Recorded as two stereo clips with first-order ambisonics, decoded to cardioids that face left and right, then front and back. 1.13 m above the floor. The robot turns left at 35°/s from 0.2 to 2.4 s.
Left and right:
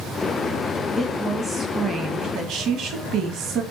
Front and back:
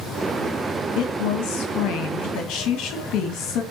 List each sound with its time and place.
0.9 s a woman speaking: 10° left, 1.5 m; by 3.6 s 40° right, 1.5 m